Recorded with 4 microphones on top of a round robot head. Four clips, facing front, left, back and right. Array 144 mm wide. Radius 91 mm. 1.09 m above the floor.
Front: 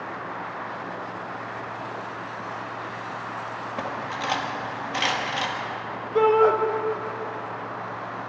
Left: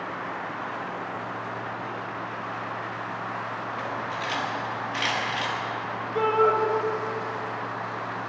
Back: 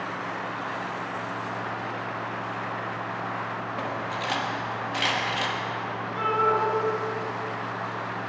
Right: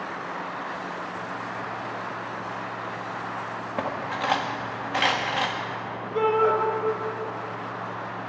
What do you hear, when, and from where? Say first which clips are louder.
3.8 s cutlery clinking: right 6 dB, front 2 dB; 75° right, 1.2 m
6.2 s a shout: even, front 7 dB; straight ahead, 1.7 m